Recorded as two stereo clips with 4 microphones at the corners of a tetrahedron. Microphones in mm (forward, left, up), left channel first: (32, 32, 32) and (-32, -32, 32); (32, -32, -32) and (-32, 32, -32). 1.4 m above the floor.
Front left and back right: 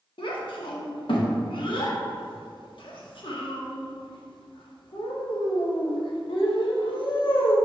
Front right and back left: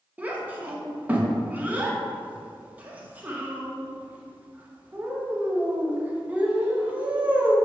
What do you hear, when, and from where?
0.2 s a child speaking: 65° left, 1.2 m